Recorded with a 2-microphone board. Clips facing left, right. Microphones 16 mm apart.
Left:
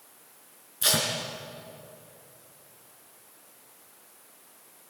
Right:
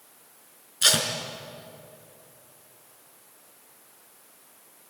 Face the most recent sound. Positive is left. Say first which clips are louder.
# right 4 dB
turn(degrees=-40)  # may be behind; listen again after turning